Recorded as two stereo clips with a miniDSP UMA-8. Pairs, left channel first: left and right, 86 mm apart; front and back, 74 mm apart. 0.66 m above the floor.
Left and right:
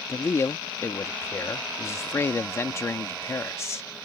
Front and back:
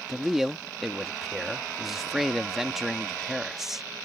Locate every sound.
0.1 s a man speaking: 95° left